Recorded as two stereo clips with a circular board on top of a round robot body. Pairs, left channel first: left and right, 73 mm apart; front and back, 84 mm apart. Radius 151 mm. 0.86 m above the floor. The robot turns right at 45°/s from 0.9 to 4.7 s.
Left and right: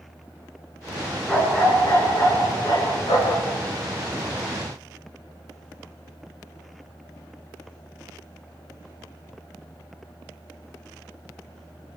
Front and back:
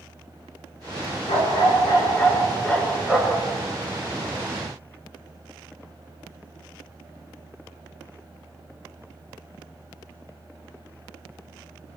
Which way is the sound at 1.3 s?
10° left.